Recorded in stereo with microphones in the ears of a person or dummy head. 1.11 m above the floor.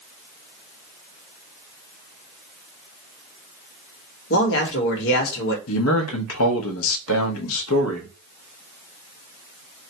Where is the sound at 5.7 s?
80° left, 1.0 m.